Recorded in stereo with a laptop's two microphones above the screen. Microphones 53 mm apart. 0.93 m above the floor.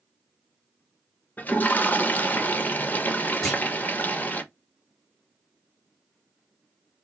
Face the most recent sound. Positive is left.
turn(degrees=5)  # may be behind; listen again after turning